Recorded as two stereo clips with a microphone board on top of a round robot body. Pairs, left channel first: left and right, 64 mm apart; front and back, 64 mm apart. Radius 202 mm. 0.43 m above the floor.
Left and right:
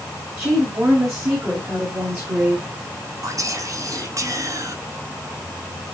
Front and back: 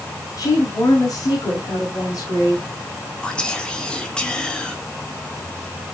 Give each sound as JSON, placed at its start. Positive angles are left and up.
{"t": 0.4, "sound": "a woman speaking", "azimuth_deg": -35, "distance_m": 5.5}
{"t": 3.2, "sound": "whispering", "azimuth_deg": -75, "distance_m": 2.0}